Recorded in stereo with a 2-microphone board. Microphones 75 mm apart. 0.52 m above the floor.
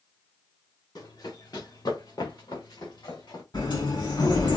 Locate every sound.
0.9 s running footsteps: 55° left (ahead or behind), 4 m; by 3.4 s 75° left (ahead or behind), 3 m
3.5 s a sliding door: 70° left (ahead or behind), 4 m